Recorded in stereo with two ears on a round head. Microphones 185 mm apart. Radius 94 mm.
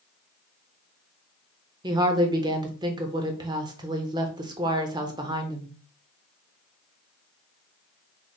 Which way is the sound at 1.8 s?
20° right (ahead or behind).